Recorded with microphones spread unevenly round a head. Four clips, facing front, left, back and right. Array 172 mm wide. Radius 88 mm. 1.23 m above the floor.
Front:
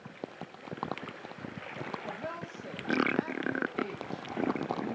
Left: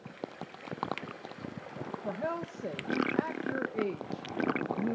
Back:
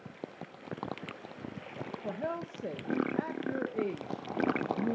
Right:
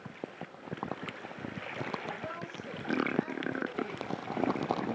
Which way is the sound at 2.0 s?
135° left.